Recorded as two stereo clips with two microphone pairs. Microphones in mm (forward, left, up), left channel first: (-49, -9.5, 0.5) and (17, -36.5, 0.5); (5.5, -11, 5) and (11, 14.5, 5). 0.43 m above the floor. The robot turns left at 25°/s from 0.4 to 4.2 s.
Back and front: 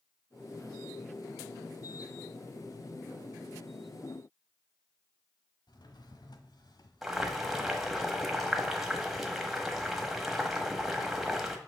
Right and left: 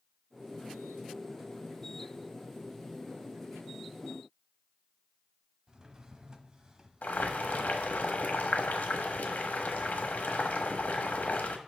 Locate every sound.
5.7 s a drawer: 145° left, 1.0 m
7.0 s boiling: 110° right, 1.2 m